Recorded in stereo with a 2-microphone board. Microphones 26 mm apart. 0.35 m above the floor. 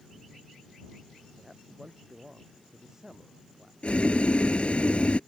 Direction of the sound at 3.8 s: 55° left (ahead or behind).